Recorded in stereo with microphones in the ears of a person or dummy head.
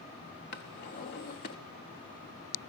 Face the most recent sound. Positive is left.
turn(degrees=35)  # may be behind; listen again after turning